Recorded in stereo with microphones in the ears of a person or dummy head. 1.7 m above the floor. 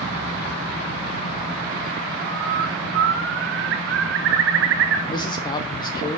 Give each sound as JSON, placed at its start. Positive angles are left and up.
{"t": 2.3, "sound": "a bird", "side_deg": -65, "distance_m": 0.8}
{"t": 5.1, "sound": "a man speaking", "side_deg": 30, "distance_m": 0.6}